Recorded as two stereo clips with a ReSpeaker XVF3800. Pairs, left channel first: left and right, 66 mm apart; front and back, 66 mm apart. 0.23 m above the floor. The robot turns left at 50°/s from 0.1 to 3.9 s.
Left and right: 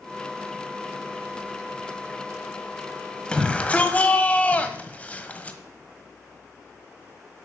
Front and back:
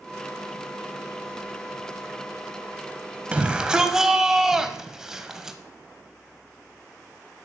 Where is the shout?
140° left, 1.1 m; by 5.6 s 110° left, 1.1 m.